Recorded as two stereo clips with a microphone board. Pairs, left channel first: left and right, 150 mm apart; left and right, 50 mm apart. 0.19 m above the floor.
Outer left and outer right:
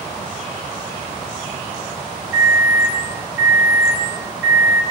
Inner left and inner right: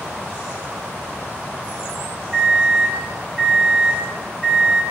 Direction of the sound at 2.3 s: 10° right (ahead or behind).